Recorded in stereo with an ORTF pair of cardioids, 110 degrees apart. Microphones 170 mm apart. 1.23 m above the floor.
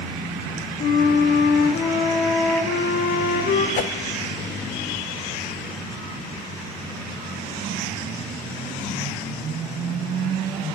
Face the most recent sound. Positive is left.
turn(degrees=50)